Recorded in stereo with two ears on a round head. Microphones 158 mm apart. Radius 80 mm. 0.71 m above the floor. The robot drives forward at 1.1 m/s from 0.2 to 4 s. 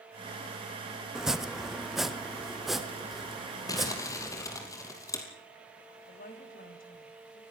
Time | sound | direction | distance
1.1 | chopping | 5° right (ahead or behind) | 0.8 m
3.7 | crumpling | 20° left (ahead or behind) | 4 m
6.1 | a woman speaking | 55° left (ahead or behind) | 4.5 m